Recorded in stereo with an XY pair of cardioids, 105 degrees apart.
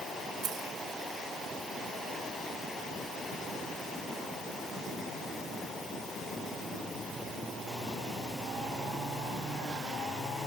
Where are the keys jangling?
65° right.